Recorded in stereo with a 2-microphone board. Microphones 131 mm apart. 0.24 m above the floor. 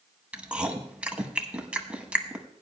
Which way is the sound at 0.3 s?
10° right (ahead or behind).